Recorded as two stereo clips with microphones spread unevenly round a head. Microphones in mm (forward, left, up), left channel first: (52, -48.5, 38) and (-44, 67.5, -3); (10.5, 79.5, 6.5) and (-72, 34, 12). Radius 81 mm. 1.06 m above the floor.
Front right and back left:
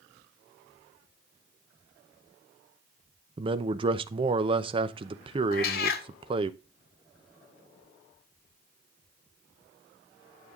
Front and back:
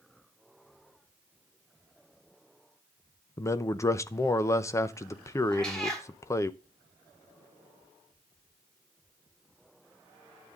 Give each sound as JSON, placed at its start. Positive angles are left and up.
{"t": 3.4, "sound": "a man speaking", "azimuth_deg": 85, "distance_m": 0.7}
{"t": 5.5, "sound": "a cat meowing", "azimuth_deg": -60, "distance_m": 1.0}